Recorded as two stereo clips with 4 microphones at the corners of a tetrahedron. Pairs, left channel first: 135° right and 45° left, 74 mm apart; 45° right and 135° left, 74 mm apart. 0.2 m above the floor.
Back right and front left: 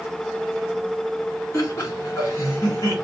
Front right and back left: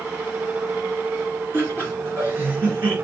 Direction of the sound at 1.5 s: 175° right.